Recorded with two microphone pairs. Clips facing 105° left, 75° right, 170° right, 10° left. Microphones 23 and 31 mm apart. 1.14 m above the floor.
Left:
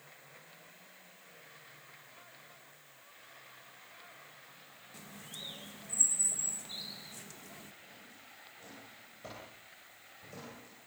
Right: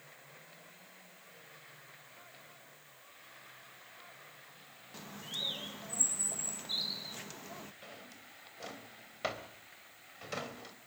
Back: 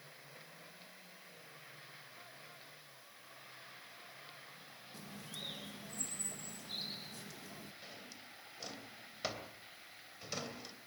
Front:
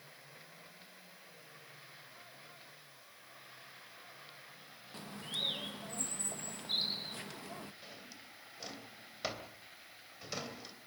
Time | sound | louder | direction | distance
4.9 | a bird | right 7 dB, front 9 dB | 25° right | 1.1 m
7.8 | a drawer | right 3 dB, even | 75° right | 3 m